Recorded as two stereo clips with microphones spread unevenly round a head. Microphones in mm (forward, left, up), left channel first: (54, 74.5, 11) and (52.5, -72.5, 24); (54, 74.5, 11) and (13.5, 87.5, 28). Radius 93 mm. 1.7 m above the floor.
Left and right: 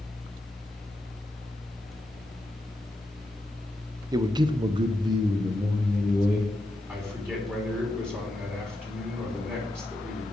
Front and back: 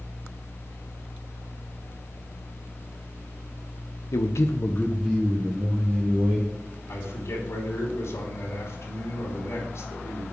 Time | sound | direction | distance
4.1 | a man speaking | 35° right | 0.8 m
6.9 | a man speaking | 15° right | 3 m